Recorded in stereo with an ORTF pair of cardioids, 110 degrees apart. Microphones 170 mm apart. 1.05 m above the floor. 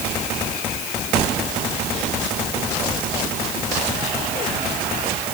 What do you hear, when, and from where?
Only background noise.